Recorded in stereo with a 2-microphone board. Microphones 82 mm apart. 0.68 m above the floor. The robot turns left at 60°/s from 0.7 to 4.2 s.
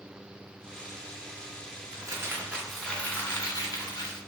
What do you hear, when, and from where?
1.9 s crumpling: 130° right, 0.6 m; by 4.2 s 95° left, 0.6 m